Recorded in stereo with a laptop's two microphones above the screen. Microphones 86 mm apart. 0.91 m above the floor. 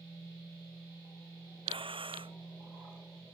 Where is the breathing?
85° right.